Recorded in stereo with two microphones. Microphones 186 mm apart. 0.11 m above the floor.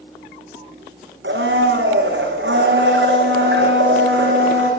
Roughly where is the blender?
Right.